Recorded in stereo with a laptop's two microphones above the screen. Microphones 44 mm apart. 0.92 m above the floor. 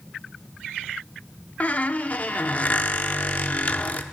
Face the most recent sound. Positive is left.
turn(degrees=35)  # may be behind; listen again after turning